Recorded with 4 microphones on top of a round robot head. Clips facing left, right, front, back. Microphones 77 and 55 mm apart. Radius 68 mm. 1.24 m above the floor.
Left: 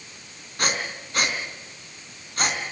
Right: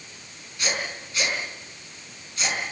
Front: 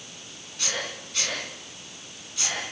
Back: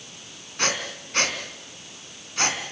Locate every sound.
0.6 s breathing: 135° left, 4 m